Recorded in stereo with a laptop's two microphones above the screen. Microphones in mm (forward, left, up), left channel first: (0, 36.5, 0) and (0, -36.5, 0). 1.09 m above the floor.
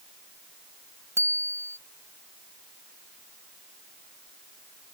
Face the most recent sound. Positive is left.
turn(degrees=-40)  # may be behind; listen again after turning